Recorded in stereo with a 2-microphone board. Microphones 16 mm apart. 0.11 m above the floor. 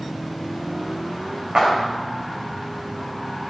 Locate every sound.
1.6 s a clap: 70° right (ahead or behind), 8 m